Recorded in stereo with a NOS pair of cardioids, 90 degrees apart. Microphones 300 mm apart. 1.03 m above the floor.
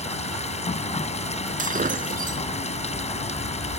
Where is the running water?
20° left.